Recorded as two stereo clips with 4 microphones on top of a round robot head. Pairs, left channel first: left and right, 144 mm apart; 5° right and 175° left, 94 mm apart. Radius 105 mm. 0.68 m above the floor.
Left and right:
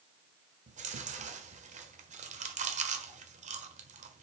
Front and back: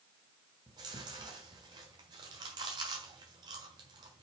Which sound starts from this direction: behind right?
Chewing, at 0.7 s.